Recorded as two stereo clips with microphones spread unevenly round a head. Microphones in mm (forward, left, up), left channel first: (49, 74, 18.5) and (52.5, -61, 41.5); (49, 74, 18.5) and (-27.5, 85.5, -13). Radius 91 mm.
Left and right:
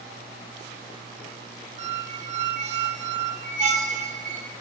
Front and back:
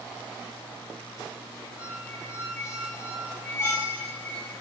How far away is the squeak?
About 0.5 m.